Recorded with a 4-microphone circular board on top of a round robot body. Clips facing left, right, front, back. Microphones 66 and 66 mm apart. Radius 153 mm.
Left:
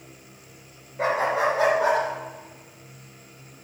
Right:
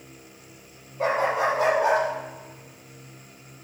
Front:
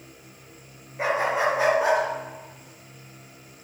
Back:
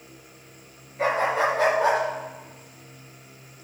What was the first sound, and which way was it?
A dog barking, 70° left.